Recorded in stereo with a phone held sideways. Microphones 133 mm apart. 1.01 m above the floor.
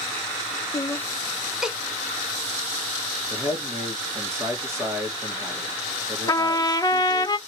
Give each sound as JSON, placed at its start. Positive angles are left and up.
{"t": 0.7, "sound": "laughter", "side_deg": 30, "distance_m": 0.6}
{"t": 3.3, "sound": "a man speaking", "side_deg": -20, "distance_m": 2.0}
{"t": 6.3, "sound": "a trumpet", "side_deg": 30, "distance_m": 0.5}